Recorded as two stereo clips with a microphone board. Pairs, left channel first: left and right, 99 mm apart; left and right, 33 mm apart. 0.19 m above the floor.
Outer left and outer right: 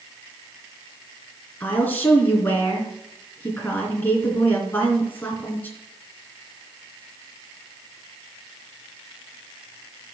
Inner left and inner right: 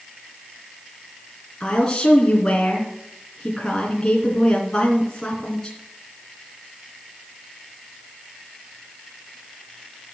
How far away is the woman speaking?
About 2.5 m.